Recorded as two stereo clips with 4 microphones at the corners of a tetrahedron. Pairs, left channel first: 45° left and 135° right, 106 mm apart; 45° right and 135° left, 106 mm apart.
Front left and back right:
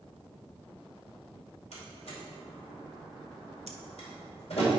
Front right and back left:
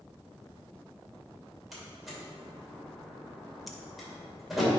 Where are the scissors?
135° right, 0.9 m.